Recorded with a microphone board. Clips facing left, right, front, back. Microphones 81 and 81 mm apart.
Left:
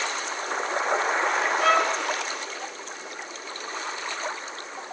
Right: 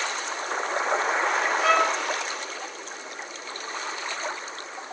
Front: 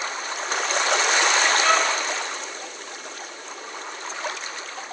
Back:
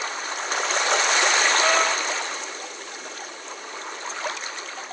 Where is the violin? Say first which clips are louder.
Even, even; 125° left, 6 m.